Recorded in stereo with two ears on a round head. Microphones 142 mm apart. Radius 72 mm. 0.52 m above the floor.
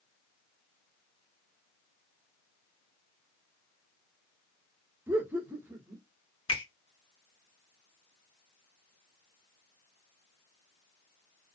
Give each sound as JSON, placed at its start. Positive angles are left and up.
{"t": 5.1, "sound": "laughter", "side_deg": -15, "distance_m": 1.0}
{"t": 6.5, "sound": "a finger snap", "side_deg": 30, "distance_m": 0.9}